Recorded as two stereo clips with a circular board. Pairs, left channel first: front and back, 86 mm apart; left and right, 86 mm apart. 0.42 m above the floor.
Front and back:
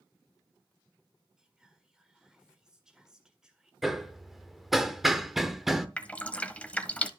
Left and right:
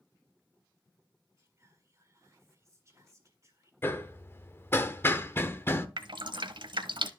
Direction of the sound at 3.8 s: 95° left.